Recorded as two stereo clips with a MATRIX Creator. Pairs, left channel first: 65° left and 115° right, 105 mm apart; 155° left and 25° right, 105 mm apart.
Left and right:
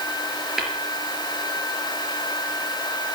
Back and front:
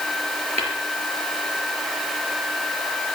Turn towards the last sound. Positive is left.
turn(degrees=-25)